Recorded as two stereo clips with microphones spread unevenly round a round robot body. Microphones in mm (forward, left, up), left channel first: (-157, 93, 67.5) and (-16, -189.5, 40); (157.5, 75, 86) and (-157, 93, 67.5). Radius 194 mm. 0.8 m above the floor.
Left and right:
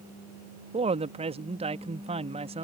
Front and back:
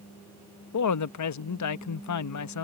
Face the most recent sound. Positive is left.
turn(degrees=0)